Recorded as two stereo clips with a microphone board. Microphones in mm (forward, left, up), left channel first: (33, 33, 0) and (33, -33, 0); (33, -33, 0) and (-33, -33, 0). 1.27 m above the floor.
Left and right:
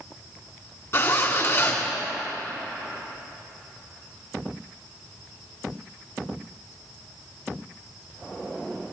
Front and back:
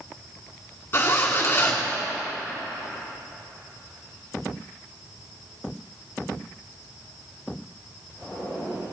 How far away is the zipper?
About 2 m.